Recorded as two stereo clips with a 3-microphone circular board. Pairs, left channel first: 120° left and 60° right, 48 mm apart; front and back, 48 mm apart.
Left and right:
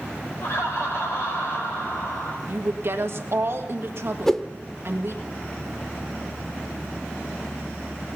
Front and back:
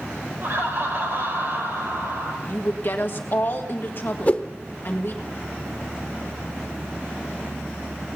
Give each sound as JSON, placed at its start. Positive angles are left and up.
{"t": 0.4, "sound": "laughter", "azimuth_deg": 150, "distance_m": 4.5}
{"t": 2.5, "sound": "a woman speaking", "azimuth_deg": -35, "distance_m": 1.7}
{"t": 4.3, "sound": "a whoosh", "azimuth_deg": 40, "distance_m": 0.9}